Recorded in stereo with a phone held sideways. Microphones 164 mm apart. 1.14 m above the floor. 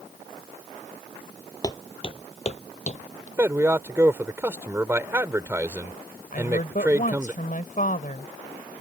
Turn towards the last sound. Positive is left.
turn(degrees=55)  # may be behind; listen again after turning